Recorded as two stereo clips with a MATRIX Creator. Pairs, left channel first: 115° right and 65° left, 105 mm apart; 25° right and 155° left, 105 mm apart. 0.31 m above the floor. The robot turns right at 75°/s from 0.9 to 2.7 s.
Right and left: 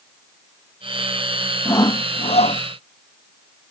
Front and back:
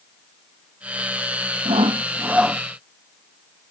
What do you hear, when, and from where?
1.6 s sawing: straight behind; by 2.6 s 105° right